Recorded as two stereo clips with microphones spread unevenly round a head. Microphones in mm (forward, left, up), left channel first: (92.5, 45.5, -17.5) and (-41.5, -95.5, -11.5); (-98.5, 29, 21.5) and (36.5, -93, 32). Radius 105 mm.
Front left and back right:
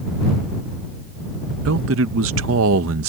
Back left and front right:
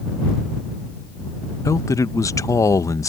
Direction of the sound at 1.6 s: 150° right.